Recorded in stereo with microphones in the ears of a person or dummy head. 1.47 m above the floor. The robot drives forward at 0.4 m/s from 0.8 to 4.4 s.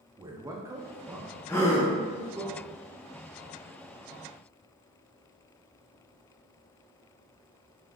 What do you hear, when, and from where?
0.2 s a man speaking: 15° right (ahead or behind), 0.6 m; by 2.5 s 5° right (ahead or behind), 1.3 m
1.5 s a gasp: 10° left (ahead or behind), 0.7 m